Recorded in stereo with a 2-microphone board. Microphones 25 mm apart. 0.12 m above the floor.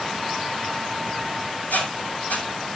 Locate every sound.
1.7 s a squeak: 90° left, 7 m